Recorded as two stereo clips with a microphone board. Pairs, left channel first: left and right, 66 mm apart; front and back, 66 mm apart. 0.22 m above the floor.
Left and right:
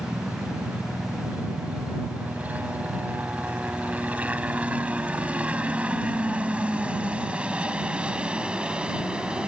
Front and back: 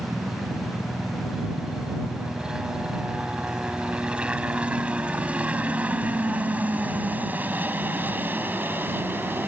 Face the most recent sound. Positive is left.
turn(degrees=-155)